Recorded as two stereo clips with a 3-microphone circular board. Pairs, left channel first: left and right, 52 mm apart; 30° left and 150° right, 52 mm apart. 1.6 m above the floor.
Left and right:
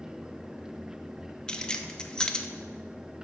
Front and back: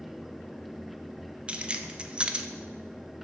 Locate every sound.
1.5 s keys jangling: 155° left, 0.6 m